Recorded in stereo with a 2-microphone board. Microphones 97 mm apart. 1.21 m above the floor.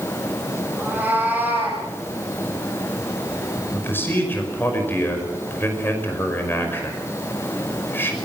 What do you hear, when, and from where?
0.8 s a cat meowing: 15° right (ahead or behind), 9.5 m
3.7 s a man speaking: 25° left (ahead or behind), 5.5 m